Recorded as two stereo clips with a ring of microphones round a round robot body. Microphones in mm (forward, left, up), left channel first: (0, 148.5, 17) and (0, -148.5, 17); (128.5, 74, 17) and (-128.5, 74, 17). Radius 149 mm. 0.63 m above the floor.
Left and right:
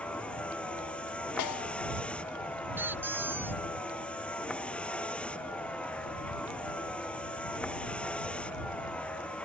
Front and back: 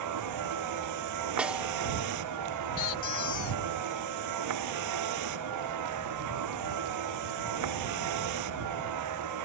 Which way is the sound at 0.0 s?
175° left.